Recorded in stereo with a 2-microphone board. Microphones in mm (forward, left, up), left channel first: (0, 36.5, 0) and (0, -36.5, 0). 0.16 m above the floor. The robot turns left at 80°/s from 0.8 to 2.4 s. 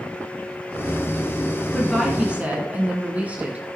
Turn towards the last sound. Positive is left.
turn(degrees=-35)